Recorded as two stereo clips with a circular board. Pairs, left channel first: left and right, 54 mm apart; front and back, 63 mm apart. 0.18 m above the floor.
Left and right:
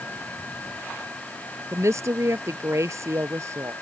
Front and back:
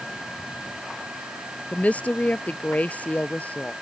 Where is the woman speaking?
70° right.